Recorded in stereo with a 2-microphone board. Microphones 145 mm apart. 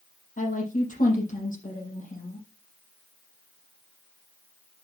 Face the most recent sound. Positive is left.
turn(degrees=60)  # may be behind; listen again after turning